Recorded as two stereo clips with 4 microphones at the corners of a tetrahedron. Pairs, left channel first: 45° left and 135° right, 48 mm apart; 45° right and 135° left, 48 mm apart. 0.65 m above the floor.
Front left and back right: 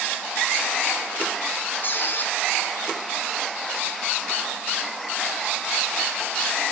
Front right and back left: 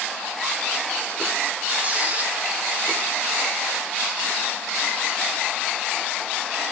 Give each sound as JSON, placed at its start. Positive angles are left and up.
{"t": 1.8, "sound": "a squeak", "azimuth_deg": 80, "distance_m": 1.1}